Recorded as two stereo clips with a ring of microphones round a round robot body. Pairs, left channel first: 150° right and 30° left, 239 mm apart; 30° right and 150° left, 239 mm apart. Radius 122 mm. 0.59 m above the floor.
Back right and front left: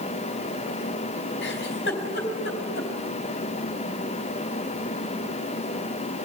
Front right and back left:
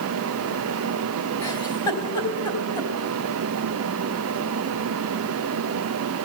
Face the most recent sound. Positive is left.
turn(degrees=-105)